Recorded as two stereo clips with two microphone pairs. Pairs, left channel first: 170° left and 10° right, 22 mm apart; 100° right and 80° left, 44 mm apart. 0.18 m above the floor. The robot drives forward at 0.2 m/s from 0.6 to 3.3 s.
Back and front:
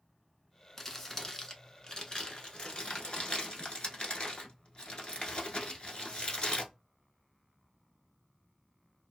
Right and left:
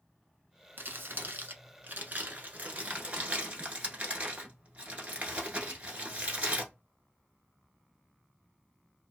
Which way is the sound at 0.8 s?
100° left.